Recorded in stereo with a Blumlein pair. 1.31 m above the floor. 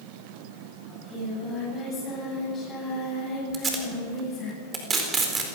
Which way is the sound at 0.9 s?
20° left.